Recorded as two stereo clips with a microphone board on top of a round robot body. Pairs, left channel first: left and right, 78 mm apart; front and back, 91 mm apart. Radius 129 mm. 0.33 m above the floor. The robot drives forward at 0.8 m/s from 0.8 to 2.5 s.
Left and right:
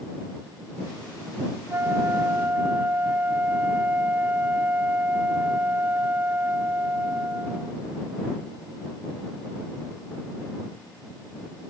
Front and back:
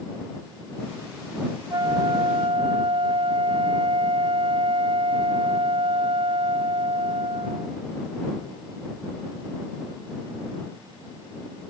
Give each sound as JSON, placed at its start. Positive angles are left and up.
{"t": 1.7, "sound": "a flute", "azimuth_deg": -145}